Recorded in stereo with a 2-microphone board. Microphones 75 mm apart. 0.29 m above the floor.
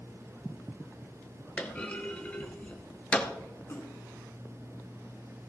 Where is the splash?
35° left (ahead or behind), 3.5 m.